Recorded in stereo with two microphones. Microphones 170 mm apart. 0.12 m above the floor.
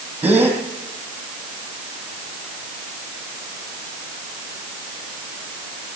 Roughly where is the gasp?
Centre.